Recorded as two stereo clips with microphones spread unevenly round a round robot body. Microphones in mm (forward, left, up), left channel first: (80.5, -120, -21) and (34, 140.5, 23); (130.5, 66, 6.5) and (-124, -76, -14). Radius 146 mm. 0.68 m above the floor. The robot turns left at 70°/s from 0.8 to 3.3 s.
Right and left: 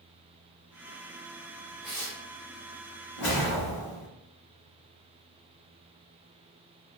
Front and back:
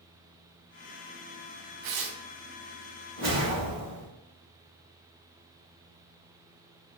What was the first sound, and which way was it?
Tearing paper, 170° right.